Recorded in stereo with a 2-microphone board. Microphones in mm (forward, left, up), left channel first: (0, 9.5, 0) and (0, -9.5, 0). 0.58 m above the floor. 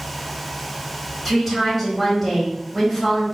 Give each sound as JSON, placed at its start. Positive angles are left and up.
{"t": 1.2, "sound": "a woman speaking", "side_deg": 5, "distance_m": 2.5}